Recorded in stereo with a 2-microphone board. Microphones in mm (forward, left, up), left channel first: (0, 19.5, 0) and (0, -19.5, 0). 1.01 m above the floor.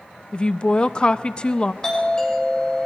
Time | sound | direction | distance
0.3 | a woman speaking | 25° left (ahead or behind) | 0.7 m
1.8 | a doorbell | 20° left (ahead or behind) | 7 m